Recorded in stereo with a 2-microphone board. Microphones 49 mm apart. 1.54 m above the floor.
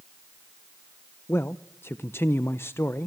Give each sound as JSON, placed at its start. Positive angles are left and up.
{"t": 1.3, "sound": "a man speaking", "side_deg": 60, "distance_m": 0.7}